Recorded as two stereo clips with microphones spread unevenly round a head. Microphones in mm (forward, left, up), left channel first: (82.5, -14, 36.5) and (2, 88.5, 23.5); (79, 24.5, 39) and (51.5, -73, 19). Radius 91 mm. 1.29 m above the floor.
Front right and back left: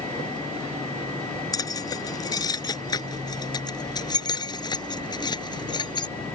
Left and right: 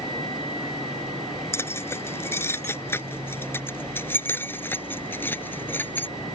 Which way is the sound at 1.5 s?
10° left.